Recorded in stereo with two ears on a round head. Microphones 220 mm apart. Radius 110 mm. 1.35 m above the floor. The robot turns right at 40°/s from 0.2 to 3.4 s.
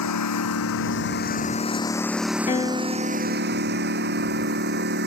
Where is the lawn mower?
95° left; by 5.1 s 135° right.